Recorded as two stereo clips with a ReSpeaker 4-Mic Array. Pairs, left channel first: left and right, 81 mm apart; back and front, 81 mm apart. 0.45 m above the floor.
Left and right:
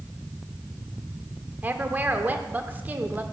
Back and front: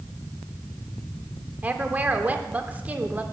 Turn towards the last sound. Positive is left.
turn(degrees=-50)